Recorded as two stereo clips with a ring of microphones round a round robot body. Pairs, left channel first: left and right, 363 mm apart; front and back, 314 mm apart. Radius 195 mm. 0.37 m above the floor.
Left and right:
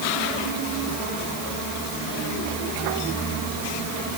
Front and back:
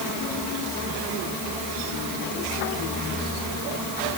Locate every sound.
Only background noise.